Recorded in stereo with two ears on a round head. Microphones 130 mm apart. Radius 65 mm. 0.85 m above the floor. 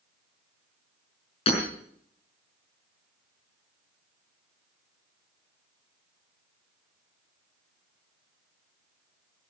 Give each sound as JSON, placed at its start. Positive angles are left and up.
{"t": 1.5, "sound": "hammering", "side_deg": 45, "distance_m": 6.5}